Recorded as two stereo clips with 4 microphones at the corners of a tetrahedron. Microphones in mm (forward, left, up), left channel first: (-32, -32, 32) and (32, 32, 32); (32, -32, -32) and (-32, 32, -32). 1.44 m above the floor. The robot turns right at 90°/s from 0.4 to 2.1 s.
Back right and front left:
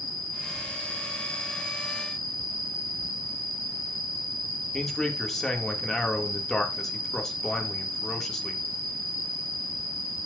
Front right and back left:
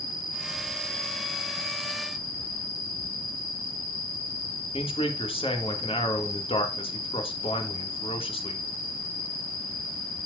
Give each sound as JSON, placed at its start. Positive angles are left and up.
{"t": 0.0, "sound": "an insect", "azimuth_deg": -100, "distance_m": 5.5}
{"t": 4.7, "sound": "a man speaking", "azimuth_deg": -50, "distance_m": 2.5}